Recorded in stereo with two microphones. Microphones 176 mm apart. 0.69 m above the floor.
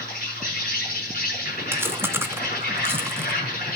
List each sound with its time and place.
0.0 s an insect: 55° left (ahead or behind), 6.5 m
1.7 s chewing: 15° right (ahead or behind), 0.8 m